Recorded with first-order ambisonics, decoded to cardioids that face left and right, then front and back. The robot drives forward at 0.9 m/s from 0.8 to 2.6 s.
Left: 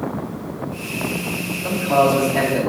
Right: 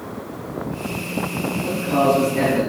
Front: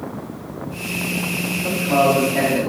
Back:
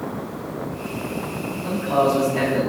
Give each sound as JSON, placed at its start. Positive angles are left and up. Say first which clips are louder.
{"t": 1.6, "sound": "a man speaking", "louder": "left 3 dB, front 2 dB", "azimuth_deg": 50, "distance_m": 1.5}